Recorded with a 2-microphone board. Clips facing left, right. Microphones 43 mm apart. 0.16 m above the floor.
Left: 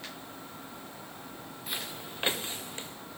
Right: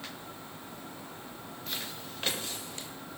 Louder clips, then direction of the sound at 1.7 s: Left 2 dB; 15° left (ahead or behind).